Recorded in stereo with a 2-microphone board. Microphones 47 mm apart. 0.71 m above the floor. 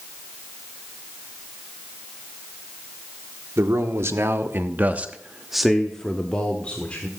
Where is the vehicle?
No vehicle in this recording.